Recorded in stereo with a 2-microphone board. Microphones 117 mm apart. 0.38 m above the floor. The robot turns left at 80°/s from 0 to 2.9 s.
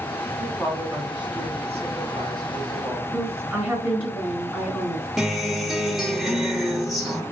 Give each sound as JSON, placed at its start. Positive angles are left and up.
{"t": 0.4, "sound": "a woman speaking", "azimuth_deg": 20, "distance_m": 2.5}
{"t": 3.1, "sound": "a woman speaking", "side_deg": 5, "distance_m": 3.5}
{"t": 5.2, "sound": "a guitar", "side_deg": 0, "distance_m": 1.5}